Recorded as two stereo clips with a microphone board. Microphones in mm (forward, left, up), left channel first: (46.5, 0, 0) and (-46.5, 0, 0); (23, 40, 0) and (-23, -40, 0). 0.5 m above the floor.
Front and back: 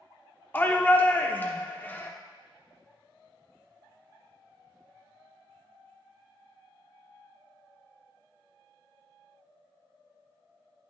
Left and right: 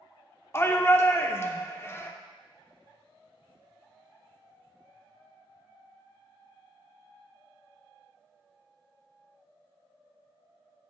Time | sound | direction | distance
0.5 | a shout | 40° left | 0.7 m